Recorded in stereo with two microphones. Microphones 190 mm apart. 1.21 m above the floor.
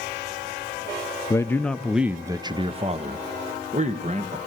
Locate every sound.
1.3 s a man speaking: 15° left (ahead or behind), 0.7 m; by 4.4 s 40° right (ahead or behind), 1.4 m